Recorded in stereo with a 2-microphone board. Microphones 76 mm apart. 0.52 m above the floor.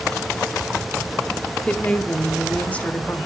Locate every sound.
1.7 s a woman speaking: 20° left (ahead or behind), 1.0 m